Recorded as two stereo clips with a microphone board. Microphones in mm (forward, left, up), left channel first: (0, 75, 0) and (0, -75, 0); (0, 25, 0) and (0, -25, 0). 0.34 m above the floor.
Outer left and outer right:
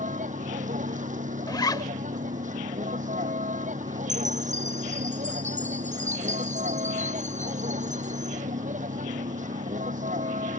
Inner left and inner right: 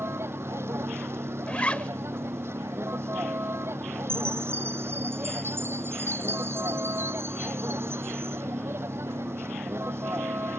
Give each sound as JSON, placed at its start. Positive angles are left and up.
{"t": 0.0, "sound": "a vehicle", "side_deg": -55}
{"t": 1.5, "sound": "a zipper", "side_deg": 25}
{"t": 4.1, "sound": "a chime", "side_deg": -55}